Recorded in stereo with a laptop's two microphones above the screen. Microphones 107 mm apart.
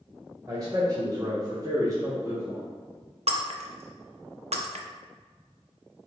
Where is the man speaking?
35° right (ahead or behind), 1.2 m; by 2.6 s 20° right (ahead or behind), 0.9 m.